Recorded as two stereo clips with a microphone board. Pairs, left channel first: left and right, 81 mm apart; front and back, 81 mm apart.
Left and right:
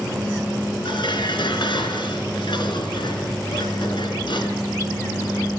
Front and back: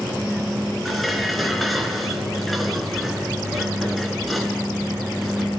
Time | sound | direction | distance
0.8 | dishes clattering | 90° left | 3 m